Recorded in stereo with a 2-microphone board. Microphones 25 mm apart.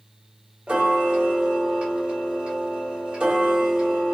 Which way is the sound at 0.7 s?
50° right (ahead or behind).